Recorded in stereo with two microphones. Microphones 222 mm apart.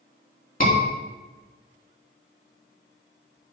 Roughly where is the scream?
Left.